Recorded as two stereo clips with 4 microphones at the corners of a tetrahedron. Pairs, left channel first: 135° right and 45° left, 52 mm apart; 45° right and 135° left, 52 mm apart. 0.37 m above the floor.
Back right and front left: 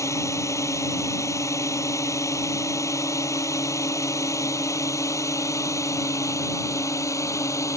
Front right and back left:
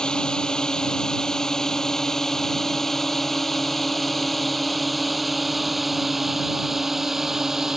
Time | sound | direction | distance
0.0 | a drone | 120° right | ?